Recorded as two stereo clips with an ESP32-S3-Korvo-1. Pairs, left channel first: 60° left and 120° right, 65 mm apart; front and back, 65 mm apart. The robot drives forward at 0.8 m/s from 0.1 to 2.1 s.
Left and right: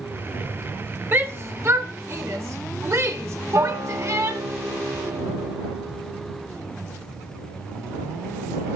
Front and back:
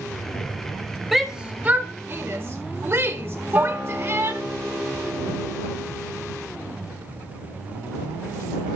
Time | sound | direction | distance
1.1 | a shout | 95° right | 1.0 m
3.5 | a guitar | 120° right | 2 m